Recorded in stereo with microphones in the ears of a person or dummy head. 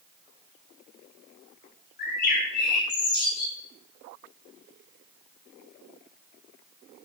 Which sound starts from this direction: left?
A bird, at 2.0 s.